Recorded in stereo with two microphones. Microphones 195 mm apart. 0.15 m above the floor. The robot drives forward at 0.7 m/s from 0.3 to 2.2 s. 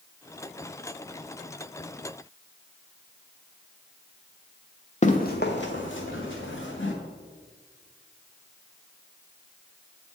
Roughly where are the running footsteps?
Left.